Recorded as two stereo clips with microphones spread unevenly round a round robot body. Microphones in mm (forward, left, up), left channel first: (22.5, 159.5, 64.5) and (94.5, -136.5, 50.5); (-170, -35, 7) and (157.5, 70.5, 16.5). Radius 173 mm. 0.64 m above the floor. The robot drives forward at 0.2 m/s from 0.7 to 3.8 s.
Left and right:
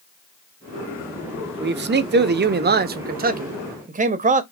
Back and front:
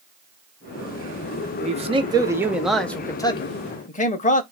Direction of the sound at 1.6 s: 45° right.